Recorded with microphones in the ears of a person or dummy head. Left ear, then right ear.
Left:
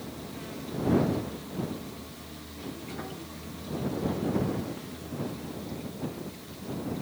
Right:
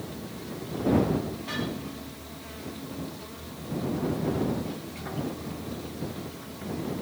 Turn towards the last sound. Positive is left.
No sound to turn to.